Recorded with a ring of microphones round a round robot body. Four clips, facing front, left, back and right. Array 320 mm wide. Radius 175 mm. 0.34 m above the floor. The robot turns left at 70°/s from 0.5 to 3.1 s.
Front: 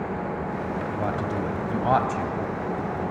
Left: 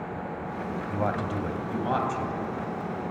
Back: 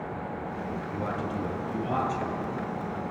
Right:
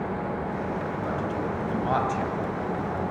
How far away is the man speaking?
About 2 m.